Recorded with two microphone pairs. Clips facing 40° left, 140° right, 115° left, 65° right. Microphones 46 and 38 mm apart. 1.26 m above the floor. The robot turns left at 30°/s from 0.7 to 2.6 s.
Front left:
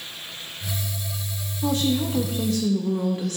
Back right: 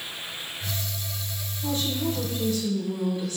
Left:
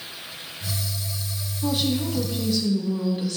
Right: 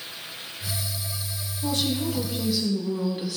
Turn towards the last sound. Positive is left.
turn(degrees=15)